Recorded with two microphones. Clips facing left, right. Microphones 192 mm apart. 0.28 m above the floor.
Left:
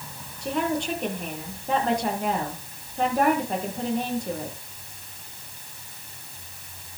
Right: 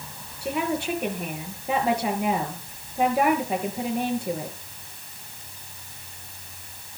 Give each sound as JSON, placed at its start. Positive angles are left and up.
{"t": 0.4, "sound": "a woman speaking", "side_deg": -10, "distance_m": 5.0}